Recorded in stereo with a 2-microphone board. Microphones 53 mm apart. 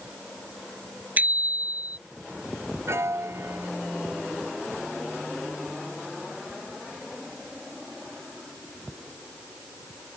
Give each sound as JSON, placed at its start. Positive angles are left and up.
{"t": 1.2, "sound": "a bicycle bell", "side_deg": -35}
{"t": 2.9, "sound": "a piano", "side_deg": -60}